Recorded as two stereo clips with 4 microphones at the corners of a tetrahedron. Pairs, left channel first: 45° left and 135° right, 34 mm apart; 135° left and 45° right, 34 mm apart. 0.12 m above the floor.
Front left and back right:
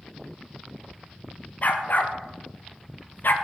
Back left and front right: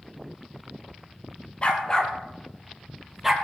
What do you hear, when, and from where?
1.6 s a dog barking: 85° left, 1.3 m; by 3.3 s 35° left, 1.3 m